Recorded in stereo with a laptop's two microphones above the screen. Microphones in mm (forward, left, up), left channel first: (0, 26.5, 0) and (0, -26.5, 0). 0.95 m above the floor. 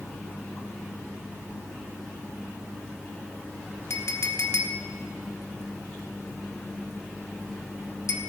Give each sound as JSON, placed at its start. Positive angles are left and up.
{"t": 3.9, "sound": "a clink", "side_deg": 60, "distance_m": 1.3}